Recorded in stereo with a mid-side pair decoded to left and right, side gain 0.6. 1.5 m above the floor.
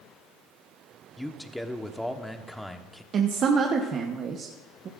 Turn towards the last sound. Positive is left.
turn(degrees=-45)